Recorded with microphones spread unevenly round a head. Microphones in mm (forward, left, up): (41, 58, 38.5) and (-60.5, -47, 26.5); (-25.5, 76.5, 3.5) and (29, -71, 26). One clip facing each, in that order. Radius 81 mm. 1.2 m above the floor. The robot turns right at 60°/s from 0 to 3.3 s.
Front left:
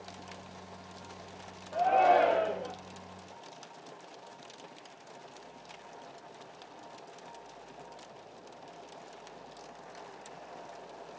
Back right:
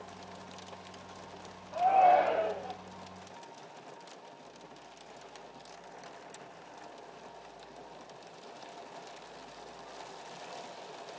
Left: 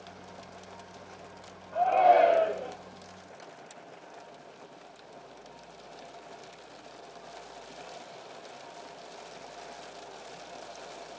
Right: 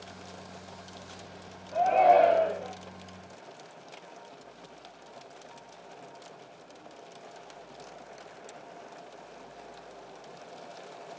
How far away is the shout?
About 3 m.